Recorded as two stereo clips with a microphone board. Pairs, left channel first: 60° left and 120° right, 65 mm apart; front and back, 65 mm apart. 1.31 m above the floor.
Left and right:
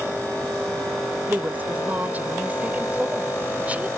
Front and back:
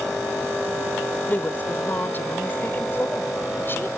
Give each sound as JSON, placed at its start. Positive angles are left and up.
{"t": 1.3, "sound": "a woman speaking", "azimuth_deg": -60}